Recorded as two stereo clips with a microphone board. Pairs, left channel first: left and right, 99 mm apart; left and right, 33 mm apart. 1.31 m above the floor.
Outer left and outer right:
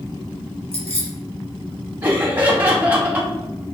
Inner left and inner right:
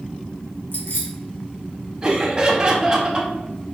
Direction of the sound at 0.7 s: 85° left.